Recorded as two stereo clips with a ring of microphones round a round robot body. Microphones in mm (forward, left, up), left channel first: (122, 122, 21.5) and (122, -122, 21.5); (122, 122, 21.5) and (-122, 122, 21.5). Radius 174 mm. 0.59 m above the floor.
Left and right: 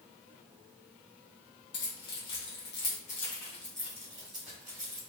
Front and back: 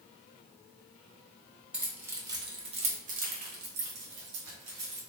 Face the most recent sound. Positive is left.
turn(degrees=-145)